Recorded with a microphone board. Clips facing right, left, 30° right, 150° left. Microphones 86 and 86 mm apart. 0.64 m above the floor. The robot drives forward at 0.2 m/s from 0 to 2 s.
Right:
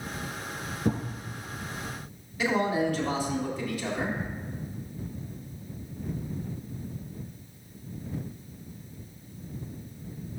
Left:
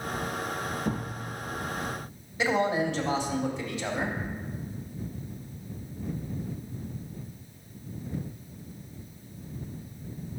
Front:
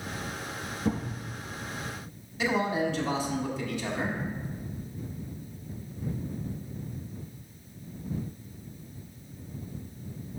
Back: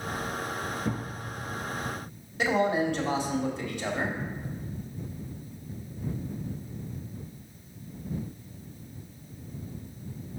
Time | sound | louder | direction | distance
0.8 | a thud | right 7 dB, front 7 dB | 125° right | 2.5 m
2.4 | a man speaking | even, back 2 dB | 150° left | 1.7 m